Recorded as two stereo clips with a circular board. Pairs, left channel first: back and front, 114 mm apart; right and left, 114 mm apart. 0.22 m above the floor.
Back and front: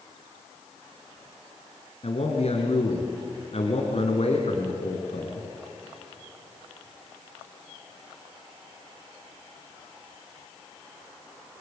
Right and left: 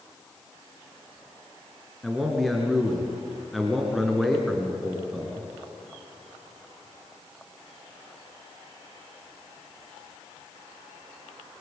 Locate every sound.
2.0 s a man speaking: straight behind, 3 m